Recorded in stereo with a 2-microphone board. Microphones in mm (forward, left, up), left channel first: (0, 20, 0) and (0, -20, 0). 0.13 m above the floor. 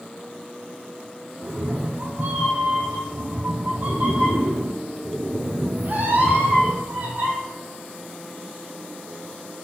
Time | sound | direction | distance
1.4 | a cat meowing | 50° right (ahead or behind) | 1.5 m